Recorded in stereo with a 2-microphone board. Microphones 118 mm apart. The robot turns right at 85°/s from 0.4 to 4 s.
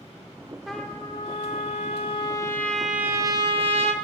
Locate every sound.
0.7 s a trumpet: straight ahead, 0.9 m; by 3.9 s 85° right, 0.9 m